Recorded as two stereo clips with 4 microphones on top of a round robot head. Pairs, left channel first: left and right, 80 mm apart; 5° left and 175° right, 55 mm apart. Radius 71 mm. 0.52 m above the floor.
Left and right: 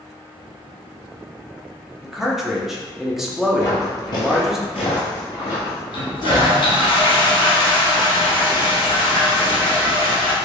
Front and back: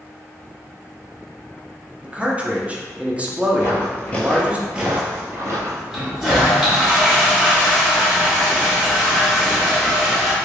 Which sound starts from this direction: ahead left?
Footsteps, at 3.6 s.